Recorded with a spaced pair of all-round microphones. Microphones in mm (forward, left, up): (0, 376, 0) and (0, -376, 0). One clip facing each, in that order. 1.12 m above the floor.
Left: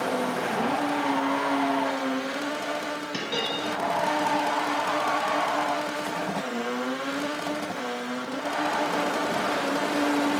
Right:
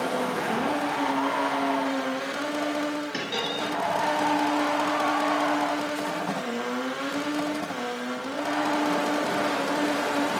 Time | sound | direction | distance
3.1 | a dropped coin | 40° left (ahead or behind) | 1.5 m